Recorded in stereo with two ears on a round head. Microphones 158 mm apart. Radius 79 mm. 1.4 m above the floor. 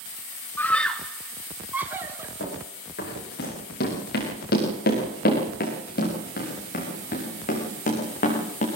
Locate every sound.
0.6 s a scream: 10° left (ahead or behind), 1.4 m; by 2.3 s 15° right (ahead or behind), 2.5 m
2.4 s running footsteps: 70° left (ahead or behind), 8.5 m; by 8.7 s 45° left (ahead or behind), 6 m